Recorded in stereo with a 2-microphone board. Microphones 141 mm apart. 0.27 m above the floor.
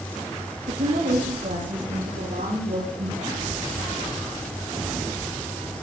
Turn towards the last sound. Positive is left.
turn(degrees=-70)  # may be behind; listen again after turning